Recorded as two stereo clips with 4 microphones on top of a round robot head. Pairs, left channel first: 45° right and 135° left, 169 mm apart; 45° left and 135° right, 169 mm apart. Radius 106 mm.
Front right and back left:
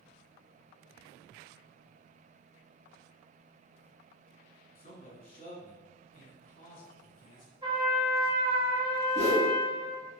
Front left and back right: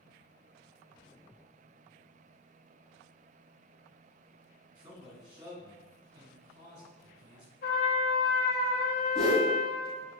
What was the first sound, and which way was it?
A man speaking, 75° right.